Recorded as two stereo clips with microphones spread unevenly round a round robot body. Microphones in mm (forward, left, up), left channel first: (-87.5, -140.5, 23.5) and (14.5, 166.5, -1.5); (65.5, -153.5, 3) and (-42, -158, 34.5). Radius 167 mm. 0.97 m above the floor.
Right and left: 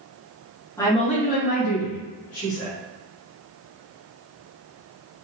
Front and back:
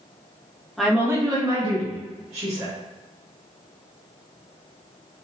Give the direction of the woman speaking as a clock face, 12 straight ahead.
1 o'clock.